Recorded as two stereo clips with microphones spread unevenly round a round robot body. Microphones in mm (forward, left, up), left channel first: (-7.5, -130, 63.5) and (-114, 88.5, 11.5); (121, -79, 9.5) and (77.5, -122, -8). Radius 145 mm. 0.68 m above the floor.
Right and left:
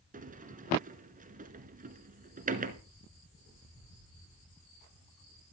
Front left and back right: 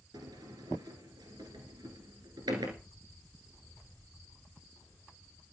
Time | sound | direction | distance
0.1 | a sliding door | straight behind | 1.3 m